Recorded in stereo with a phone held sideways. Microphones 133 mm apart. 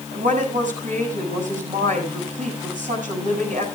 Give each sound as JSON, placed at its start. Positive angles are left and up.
{"t": 0.1, "sound": "a woman speaking", "side_deg": -80, "distance_m": 7.0}